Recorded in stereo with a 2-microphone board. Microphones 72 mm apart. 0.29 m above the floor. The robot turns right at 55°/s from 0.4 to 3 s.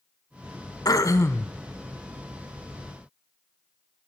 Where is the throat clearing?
110° left, 0.8 m; by 1.5 s 145° left, 0.8 m.